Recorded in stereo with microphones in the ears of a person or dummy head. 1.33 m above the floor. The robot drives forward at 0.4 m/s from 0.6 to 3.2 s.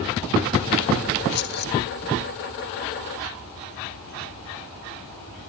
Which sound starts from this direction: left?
Keys jangling, at 1.3 s.